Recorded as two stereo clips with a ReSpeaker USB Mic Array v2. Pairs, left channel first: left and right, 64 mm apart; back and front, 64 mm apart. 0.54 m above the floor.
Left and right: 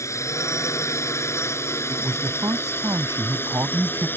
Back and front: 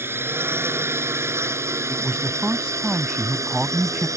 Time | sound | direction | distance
0.0 | a drone | 55° left | ?
1.9 | a man speaking | 75° right | ?